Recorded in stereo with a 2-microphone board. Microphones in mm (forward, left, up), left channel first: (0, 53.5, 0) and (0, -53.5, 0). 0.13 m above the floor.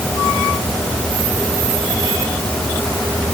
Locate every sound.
Only background noise.